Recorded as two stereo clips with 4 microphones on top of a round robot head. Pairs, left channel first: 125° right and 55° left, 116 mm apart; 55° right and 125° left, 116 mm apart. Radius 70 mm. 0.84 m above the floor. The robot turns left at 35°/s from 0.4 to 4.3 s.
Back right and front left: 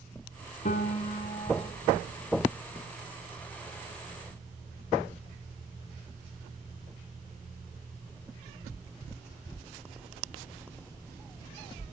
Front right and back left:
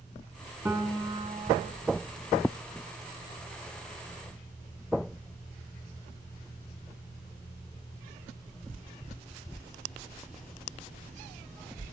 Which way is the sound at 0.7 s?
160° right.